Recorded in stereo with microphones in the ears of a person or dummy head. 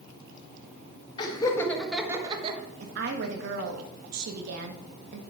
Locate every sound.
1.2 s laughter: 30° left (ahead or behind), 2 m; by 2.6 s 40° right (ahead or behind), 1.4 m
2.8 s a woman speaking: 70° right (ahead or behind), 1.2 m